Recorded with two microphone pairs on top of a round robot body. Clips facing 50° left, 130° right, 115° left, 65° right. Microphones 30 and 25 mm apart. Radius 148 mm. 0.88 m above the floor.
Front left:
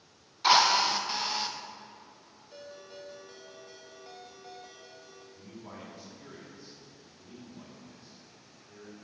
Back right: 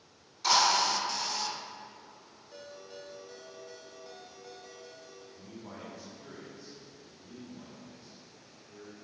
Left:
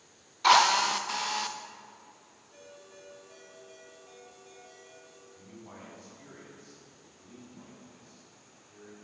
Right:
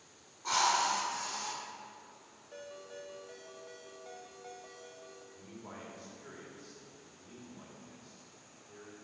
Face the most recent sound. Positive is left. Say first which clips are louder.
# front left 1 dB, even
turn(degrees=-35)